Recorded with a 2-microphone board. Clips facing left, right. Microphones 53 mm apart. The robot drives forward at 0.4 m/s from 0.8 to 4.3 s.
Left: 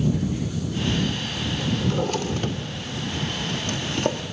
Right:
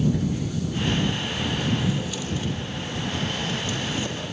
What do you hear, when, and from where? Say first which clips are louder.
1.8 s a drawer: left 3 dB; 50° left (ahead or behind), 2 m; by 4.2 s 65° left (ahead or behind), 1.8 m